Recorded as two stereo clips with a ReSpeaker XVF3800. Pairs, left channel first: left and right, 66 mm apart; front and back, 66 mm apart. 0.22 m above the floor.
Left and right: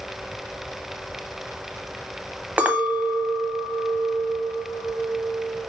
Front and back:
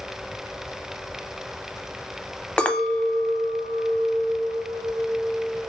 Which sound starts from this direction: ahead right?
A clink, at 2.6 s.